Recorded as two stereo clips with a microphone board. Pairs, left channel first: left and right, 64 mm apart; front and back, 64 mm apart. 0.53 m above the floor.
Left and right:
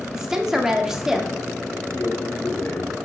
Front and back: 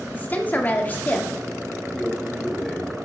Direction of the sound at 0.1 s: 15° right.